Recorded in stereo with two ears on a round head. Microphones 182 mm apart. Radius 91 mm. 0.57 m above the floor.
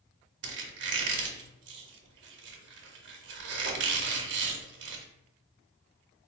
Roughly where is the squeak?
Right.